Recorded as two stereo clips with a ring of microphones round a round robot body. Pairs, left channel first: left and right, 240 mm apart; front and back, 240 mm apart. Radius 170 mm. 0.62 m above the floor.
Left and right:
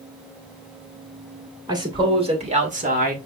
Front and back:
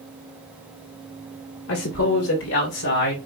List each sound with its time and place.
1.7 s a man speaking: 20° right, 2.5 m; by 3.2 s 45° right, 2 m